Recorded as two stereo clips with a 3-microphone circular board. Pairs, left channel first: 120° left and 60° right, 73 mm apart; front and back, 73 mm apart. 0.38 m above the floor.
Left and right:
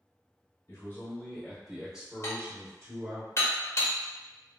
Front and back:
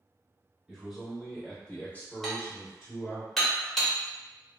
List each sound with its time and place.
0.7 s a man speaking: 100° left, 1.1 m; by 3.2 s 35° right, 1.4 m
2.2 s dishes clattering: 90° left, 0.8 m